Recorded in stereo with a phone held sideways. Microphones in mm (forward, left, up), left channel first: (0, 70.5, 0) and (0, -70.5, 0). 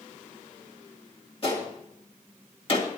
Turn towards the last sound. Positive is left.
turn(degrees=40)  # may be behind; listen again after turning